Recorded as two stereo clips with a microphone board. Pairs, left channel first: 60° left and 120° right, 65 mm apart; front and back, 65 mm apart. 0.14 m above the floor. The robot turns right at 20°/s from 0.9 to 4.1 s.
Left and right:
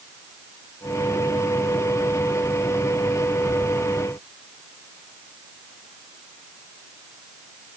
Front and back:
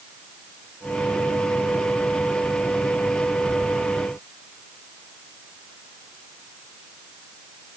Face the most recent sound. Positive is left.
No sound to turn to.